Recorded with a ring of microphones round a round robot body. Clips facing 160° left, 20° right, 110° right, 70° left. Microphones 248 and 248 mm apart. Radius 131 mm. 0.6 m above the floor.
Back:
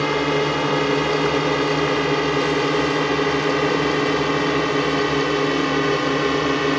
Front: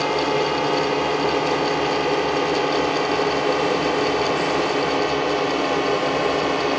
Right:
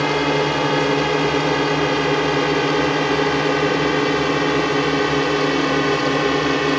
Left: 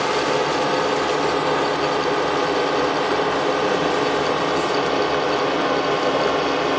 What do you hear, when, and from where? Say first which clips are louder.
0.0 s a drone: back 1 dB, right 2 dB; 150° right